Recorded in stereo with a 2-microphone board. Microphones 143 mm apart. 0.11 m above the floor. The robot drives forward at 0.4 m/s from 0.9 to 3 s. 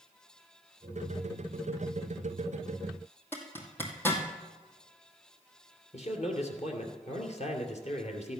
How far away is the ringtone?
No ringtone in this recording.